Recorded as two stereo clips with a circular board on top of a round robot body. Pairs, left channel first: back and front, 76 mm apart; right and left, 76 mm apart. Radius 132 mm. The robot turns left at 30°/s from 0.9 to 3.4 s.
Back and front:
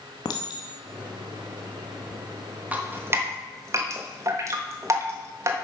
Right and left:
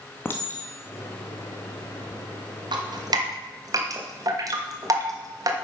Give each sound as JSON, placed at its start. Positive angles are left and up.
{"t": 0.2, "sound": "a clink", "azimuth_deg": -150, "distance_m": 0.7}
{"t": 2.7, "sound": "dripping", "azimuth_deg": 70, "distance_m": 1.5}